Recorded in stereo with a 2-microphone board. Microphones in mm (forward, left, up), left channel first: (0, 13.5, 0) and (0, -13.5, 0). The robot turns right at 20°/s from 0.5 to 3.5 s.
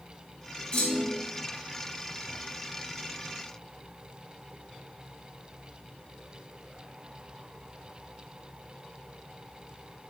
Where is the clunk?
35° left (ahead or behind), 2 m; by 1.2 s 25° left (ahead or behind), 2 m.